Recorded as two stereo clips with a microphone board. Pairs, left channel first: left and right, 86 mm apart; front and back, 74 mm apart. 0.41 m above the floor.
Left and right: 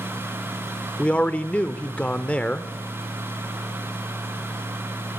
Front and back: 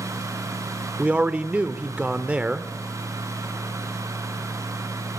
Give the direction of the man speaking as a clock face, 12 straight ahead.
7 o'clock.